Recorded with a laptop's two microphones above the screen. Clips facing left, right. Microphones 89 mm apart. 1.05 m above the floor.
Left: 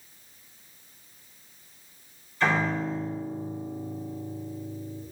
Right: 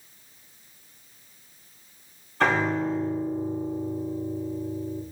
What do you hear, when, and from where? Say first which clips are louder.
2.4 s a piano: right 3 dB; 75° right (ahead or behind), 2.5 m